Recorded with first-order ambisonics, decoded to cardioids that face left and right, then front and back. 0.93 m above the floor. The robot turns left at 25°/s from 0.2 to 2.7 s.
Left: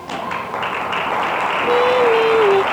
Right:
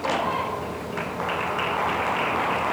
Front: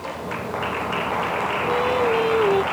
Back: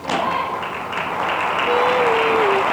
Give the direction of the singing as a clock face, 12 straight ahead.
8 o'clock.